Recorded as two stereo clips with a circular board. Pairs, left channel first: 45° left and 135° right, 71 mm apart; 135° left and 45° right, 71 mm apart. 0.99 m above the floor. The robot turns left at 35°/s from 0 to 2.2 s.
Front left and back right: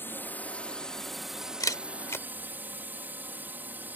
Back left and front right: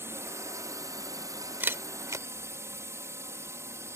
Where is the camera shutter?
15° left; by 2.2 s 5° right.